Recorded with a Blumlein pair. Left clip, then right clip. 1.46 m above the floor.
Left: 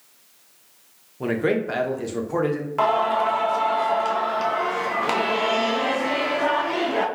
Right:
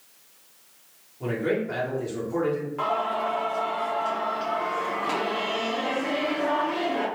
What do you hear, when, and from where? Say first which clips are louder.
1.2 s a man speaking: left 4 dB; 30° left, 0.8 m
2.8 s singing: left 8 dB; 60° left, 0.6 m